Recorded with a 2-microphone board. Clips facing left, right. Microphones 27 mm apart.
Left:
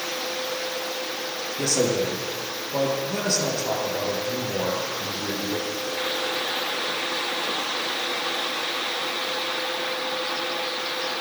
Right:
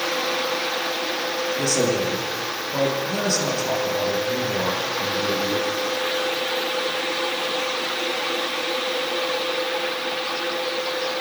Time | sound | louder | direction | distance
1.6 | a man speaking | even | 10° left (ahead or behind) | 3 m